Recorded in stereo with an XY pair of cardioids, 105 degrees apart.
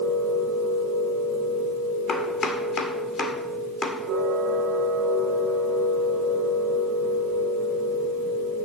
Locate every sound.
0.0 s a machine running: 65° right, 2 m
2.1 s chopping: 45° left, 1.7 m